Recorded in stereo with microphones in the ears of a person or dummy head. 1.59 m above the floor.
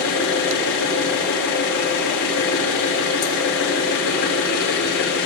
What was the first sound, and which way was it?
An engine running, 65° left (ahead or behind).